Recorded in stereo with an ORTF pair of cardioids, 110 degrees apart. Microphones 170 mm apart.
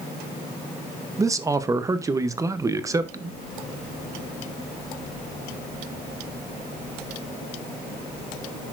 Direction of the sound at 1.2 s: 20° right.